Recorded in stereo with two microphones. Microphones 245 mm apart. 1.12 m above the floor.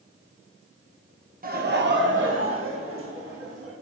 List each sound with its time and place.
1.4 s laughter: 35° right (ahead or behind), 0.7 m; by 3.7 s 65° right (ahead or behind), 1.8 m